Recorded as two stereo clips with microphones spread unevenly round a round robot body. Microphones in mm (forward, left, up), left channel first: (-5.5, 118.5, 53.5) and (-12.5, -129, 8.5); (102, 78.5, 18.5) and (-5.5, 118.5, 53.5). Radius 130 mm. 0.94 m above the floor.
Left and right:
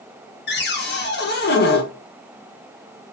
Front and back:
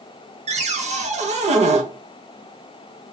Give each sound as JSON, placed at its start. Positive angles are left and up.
{"t": 0.5, "sound": "a cupboard door", "azimuth_deg": 135, "distance_m": 0.9}